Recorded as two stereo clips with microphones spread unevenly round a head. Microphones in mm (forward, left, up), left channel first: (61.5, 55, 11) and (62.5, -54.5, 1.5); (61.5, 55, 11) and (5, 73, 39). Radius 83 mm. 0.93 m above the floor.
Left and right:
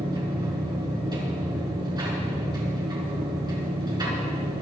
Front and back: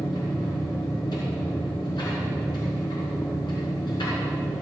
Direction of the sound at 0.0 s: 35° right.